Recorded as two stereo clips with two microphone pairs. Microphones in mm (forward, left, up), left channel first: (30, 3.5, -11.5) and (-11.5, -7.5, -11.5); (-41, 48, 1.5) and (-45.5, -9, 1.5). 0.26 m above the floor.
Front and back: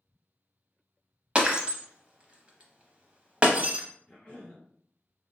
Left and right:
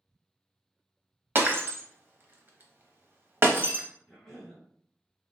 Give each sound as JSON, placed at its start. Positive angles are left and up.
{"t": 1.4, "sound": "breaking glass", "azimuth_deg": -120, "distance_m": 0.6}
{"t": 4.1, "sound": "a cough", "azimuth_deg": 25, "distance_m": 1.7}